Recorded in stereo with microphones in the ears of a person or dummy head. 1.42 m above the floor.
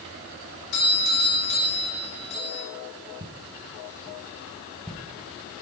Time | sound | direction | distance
0.7 | a doorbell | 75° left (ahead or behind) | 6 m
3.2 | footsteps | 30° right (ahead or behind) | 1.6 m